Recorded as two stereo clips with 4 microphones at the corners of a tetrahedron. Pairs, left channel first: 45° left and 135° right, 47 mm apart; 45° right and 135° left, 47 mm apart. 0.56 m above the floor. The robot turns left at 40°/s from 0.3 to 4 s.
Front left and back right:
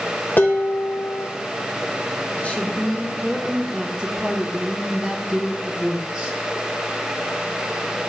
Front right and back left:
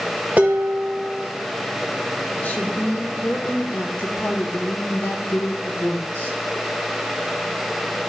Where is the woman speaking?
5° right, 1.1 m; by 6.4 s 70° right, 1.1 m.